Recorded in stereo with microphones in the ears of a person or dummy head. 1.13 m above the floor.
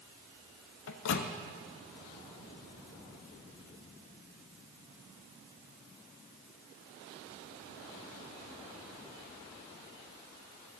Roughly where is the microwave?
Left.